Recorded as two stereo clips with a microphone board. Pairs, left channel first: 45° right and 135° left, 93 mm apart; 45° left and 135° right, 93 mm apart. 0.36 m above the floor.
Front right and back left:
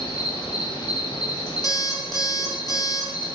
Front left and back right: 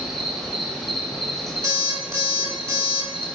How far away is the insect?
About 0.8 m.